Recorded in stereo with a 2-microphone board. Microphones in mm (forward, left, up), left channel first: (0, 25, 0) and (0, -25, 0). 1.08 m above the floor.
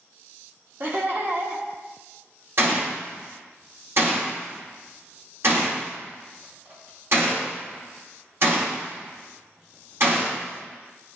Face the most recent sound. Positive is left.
turn(degrees=-60)  # may be behind; listen again after turning